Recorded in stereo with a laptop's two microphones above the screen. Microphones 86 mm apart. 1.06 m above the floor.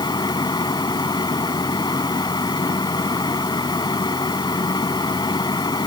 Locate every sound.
0.0 s a fan: 55° left (ahead or behind)